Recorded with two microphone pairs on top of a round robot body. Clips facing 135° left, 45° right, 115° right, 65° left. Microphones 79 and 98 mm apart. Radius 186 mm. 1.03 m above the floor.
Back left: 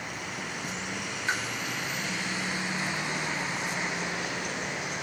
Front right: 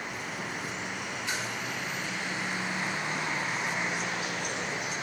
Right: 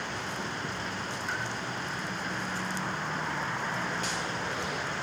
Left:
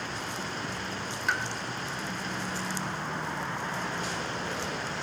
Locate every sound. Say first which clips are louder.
1.3 s a pop: back left 6 dB, left 7 dB; 90° left, 0.8 m